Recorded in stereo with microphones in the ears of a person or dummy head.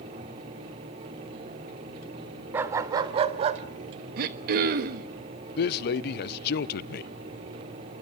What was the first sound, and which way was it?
A dog barking, 15° right (ahead or behind).